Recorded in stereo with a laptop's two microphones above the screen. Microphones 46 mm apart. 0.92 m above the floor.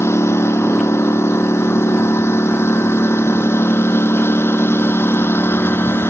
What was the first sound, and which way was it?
A lawn mower, 70° left (ahead or behind).